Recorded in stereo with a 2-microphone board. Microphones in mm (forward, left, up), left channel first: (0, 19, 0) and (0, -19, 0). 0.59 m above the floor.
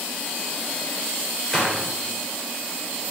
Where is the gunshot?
10° left (ahead or behind), 2.0 m.